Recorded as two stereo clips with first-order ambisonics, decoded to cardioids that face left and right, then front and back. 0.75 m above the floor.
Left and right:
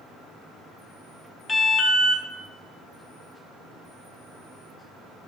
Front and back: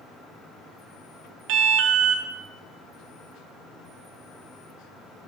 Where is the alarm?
165° left, 0.8 m.